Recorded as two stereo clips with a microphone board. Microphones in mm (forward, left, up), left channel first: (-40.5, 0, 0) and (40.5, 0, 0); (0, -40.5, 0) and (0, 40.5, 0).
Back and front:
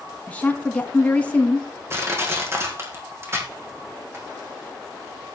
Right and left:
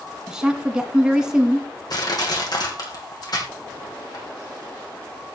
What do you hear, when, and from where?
0.3 s a woman speaking: 155° left, 1.1 m
1.9 s crushing: 55° right, 3.5 m